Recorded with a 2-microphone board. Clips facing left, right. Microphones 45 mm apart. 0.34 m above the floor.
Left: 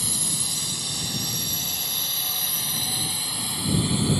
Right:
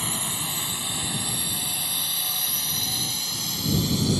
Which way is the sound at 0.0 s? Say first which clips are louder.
Right 2 dB; 30° right (ahead or behind).